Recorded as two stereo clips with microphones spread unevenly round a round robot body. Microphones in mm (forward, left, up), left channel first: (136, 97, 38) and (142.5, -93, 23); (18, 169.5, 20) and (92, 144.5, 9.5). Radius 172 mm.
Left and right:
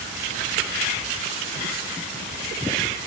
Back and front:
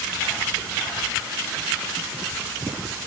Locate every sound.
Only background noise.